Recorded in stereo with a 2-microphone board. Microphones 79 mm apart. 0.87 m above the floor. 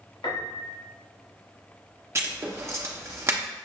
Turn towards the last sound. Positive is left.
turn(degrees=-35)  # may be behind; listen again after turning